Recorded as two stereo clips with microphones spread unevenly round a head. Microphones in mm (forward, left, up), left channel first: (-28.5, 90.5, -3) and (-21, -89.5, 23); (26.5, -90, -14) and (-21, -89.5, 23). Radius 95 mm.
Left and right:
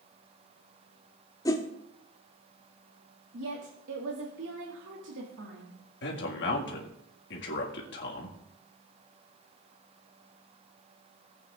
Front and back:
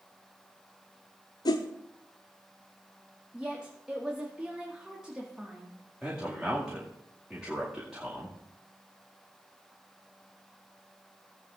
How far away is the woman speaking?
About 1.6 m.